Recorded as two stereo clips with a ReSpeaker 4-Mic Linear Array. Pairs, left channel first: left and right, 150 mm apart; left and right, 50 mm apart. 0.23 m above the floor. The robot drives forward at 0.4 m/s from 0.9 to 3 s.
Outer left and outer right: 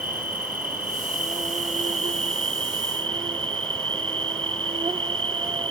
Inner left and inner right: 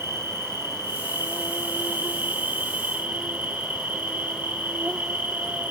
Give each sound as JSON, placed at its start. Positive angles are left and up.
{"t": 0.0, "sound": "an insect", "side_deg": -65, "distance_m": 1.0}